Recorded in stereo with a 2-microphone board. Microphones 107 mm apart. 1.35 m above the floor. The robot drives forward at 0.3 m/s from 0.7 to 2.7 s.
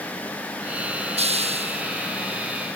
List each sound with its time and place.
1.2 s a hiss: 75° right (ahead or behind); by 1.8 s 70° right (ahead or behind)